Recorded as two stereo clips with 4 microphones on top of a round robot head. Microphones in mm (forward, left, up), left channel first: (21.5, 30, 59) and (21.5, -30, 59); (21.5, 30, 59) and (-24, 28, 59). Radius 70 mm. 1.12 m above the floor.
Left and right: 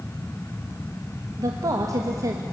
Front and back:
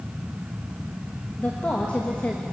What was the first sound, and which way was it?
A woman speaking, 65° right.